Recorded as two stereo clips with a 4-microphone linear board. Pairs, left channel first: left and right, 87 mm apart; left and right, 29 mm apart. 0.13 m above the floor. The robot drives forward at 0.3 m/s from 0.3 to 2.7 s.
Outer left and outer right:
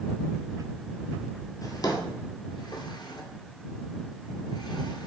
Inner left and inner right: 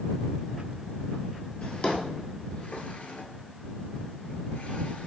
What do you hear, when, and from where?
1.6 s a drawer: 45° left (ahead or behind), 0.7 m; by 5.1 s 60° left (ahead or behind), 0.6 m